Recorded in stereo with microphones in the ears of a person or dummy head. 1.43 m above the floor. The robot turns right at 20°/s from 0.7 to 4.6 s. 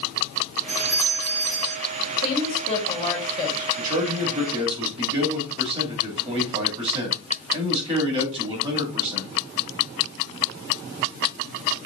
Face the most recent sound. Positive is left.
turn(degrees=-30)  # may be behind; listen again after turning